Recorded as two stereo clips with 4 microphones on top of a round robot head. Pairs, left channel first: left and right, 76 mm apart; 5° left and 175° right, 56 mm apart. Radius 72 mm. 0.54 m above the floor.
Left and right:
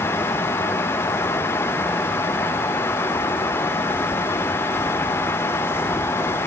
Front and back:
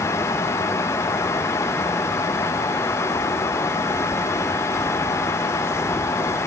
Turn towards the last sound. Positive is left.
No sound to turn to.